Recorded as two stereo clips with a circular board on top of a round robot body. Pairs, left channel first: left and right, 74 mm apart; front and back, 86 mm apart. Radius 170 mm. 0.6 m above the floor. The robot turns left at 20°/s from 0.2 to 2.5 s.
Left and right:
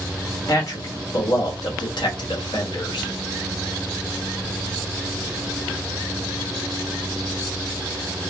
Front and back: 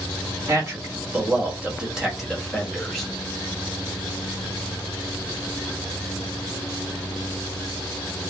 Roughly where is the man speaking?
Behind left.